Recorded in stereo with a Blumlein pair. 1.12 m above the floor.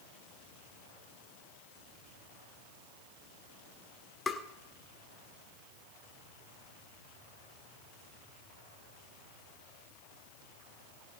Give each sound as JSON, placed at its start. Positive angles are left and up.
{"t": 4.3, "sound": "tapping", "azimuth_deg": 15, "distance_m": 1.5}